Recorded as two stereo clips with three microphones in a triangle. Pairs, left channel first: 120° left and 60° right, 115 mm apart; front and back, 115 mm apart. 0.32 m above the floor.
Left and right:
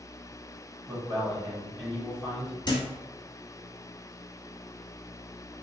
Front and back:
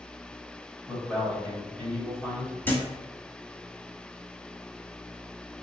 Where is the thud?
70° left, 0.8 m.